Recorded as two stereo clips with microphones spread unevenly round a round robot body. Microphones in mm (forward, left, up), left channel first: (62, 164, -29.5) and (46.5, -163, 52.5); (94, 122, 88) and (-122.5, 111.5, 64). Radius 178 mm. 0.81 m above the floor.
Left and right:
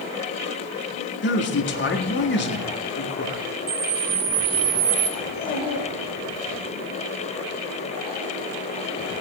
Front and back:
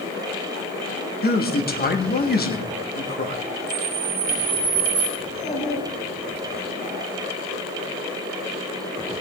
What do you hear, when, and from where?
1.2 s a man speaking: 45° left, 1.8 m
3.7 s a camera shutter: 140° right, 0.8 m
5.2 s a child speaking: 15° left, 7 m